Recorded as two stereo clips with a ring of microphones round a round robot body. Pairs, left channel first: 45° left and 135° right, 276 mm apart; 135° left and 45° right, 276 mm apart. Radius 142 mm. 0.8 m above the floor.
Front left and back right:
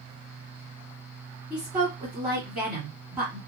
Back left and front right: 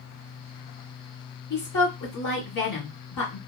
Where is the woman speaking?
135° left, 2.0 m.